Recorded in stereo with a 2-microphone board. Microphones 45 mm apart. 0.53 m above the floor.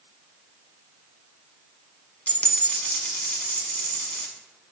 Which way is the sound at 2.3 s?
30° left (ahead or behind).